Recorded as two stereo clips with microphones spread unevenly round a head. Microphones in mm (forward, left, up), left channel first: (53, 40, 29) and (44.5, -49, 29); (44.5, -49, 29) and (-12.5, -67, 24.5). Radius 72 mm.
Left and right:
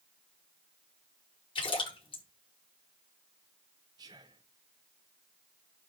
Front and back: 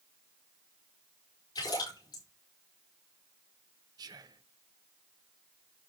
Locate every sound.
1.6 s a splash: 60° left, 5 m
4.0 s whispering: 155° right, 1.2 m